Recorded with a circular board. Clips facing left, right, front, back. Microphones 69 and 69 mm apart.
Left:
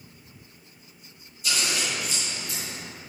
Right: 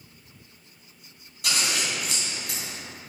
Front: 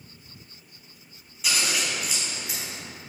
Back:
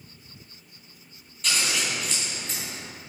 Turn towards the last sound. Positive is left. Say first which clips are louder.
# even, even
turn(degrees=-80)